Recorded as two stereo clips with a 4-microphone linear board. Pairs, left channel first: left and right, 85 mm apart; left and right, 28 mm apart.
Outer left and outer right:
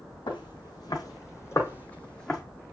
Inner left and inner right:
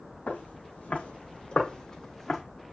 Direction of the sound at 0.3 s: 60° left (ahead or behind).